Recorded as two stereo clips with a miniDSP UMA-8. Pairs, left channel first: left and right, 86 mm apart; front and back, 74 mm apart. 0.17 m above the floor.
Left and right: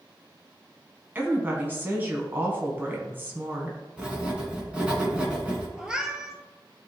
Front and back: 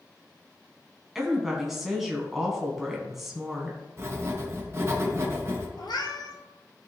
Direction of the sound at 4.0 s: 160° right.